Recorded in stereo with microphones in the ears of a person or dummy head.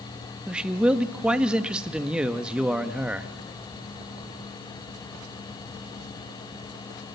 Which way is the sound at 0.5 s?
10° right (ahead or behind).